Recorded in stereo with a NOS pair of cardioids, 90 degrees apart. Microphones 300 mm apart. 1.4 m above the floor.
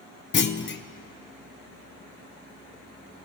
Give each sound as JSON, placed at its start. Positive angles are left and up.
{"t": 0.3, "sound": "a clunk", "azimuth_deg": 40, "distance_m": 0.8}